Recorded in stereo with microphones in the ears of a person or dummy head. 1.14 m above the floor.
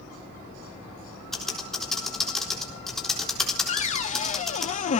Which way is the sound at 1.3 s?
5° left (ahead or behind).